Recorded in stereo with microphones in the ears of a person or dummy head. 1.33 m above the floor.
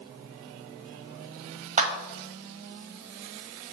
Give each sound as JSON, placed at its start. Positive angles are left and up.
{"t": 1.8, "sound": "a clap", "side_deg": -30, "distance_m": 1.3}